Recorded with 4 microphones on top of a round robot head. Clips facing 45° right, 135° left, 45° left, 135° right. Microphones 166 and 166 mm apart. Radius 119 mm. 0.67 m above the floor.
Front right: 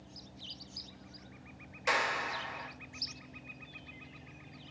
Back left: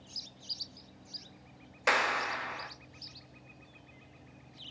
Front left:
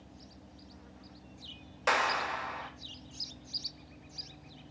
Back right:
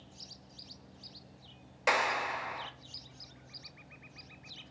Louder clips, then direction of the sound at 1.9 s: Back left 3 dB, even; 145° left.